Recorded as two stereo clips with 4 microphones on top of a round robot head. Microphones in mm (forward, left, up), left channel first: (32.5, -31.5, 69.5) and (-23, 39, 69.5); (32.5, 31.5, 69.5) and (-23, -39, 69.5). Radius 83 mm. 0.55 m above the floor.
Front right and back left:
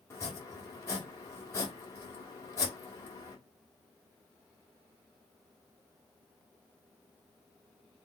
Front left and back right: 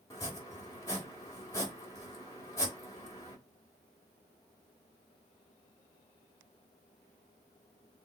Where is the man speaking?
I don't hear a man speaking.